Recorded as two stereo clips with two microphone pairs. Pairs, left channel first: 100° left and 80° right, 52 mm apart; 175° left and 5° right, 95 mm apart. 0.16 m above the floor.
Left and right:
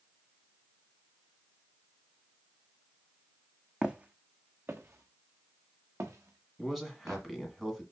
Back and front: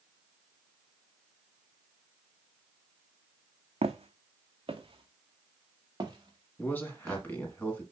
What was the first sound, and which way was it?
Footsteps, 10° right.